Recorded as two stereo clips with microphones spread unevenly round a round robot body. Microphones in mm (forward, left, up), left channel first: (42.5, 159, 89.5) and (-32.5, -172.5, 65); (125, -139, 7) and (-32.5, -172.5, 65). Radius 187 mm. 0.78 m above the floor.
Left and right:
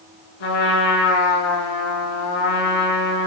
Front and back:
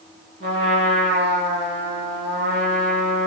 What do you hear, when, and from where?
0.4 s a trumpet: 90° left, 5.5 m